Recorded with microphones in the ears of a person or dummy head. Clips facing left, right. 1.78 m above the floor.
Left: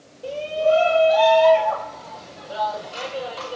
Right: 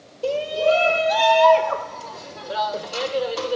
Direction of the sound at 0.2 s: 80° right.